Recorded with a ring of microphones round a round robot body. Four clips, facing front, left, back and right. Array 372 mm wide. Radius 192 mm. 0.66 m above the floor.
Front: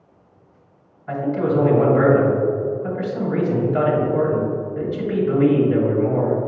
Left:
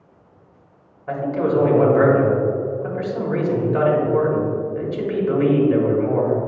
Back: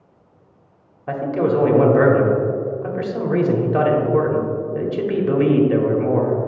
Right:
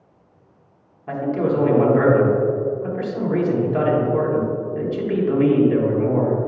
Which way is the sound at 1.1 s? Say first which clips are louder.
Left 1 dB, back 1 dB; 175° right.